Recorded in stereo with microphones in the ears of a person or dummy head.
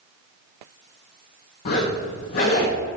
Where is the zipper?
30° left (ahead or behind), 0.9 m.